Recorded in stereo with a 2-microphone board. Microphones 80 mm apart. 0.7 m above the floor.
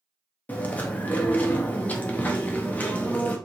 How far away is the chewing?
About 0.6 m.